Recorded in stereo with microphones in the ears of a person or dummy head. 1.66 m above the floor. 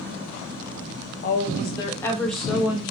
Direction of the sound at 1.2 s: 50° left (ahead or behind).